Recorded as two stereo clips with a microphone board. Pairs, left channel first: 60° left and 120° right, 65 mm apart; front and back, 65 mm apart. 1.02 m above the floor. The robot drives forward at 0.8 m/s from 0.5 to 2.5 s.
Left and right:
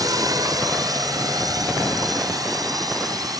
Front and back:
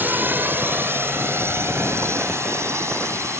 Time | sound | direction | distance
0.0 | a drone | 120° right | ?